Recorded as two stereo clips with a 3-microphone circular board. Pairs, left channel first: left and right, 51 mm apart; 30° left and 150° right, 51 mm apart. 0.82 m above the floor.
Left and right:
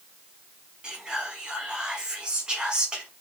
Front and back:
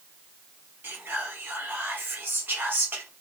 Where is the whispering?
160° right, 0.8 m.